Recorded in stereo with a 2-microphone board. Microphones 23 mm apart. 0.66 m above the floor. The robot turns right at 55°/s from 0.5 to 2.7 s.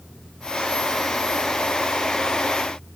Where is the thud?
No thud in this recording.